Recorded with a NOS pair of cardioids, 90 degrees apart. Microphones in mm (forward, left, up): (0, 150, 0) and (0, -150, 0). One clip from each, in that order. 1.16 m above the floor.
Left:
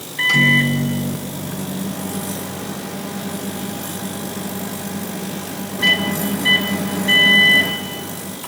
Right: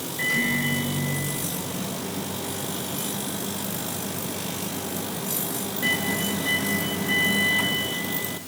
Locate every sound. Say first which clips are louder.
0.2 s a microwave: left 10 dB; 65° left, 1.2 m